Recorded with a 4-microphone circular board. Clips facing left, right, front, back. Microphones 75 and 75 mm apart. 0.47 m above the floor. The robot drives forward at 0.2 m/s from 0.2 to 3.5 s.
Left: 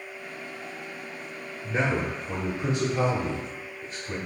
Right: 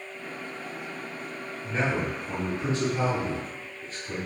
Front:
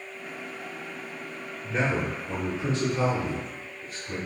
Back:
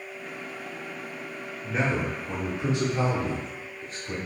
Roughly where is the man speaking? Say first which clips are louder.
Left 1 dB, even; left.